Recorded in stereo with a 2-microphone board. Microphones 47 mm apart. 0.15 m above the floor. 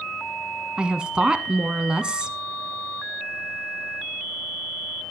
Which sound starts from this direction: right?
A woman speaking, at 0.8 s.